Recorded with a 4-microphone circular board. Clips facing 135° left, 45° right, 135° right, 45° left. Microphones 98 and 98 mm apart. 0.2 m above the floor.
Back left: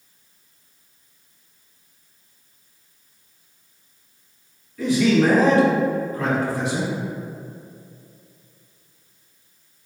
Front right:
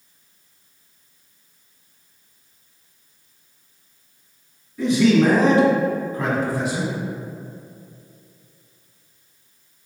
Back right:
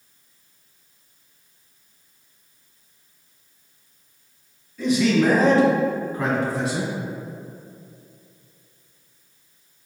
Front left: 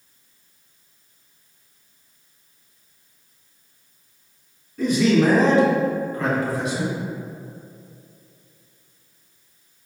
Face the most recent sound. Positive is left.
turn(degrees=-125)